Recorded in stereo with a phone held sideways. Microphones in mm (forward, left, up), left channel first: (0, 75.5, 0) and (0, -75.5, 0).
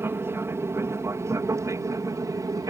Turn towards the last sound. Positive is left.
turn(degrees=-25)  # may be behind; listen again after turning